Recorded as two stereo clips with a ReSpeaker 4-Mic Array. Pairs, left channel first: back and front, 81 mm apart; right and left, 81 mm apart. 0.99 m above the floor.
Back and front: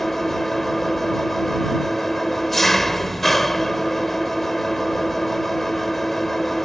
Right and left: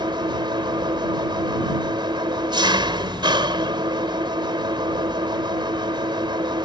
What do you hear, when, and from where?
0.0 s an engine running: 90° left